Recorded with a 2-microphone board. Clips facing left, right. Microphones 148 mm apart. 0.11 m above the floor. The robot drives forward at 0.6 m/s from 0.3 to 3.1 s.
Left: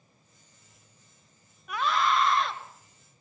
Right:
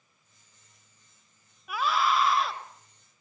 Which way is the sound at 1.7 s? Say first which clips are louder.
Even; 5° right (ahead or behind).